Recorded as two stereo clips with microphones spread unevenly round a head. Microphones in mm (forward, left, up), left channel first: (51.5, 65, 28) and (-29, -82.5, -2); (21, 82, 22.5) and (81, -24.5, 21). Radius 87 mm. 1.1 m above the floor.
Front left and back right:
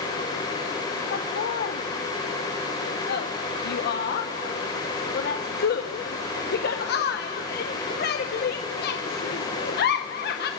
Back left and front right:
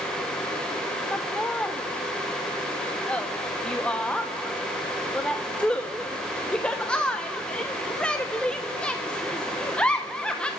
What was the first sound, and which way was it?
Laughter, 40° left.